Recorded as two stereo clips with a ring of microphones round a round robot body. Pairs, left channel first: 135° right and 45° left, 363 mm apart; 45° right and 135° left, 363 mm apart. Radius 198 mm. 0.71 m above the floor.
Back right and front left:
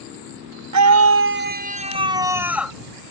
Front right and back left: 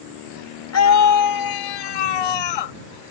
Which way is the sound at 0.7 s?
5° left.